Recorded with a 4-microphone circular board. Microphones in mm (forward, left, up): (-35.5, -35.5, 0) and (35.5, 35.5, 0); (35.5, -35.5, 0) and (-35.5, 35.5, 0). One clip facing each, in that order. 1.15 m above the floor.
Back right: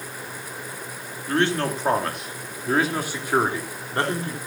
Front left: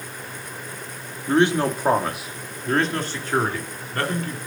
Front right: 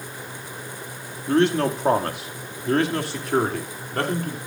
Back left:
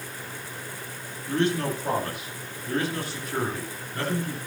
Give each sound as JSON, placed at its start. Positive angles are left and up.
{"t": 1.3, "sound": "a man speaking", "azimuth_deg": -25, "distance_m": 2.5}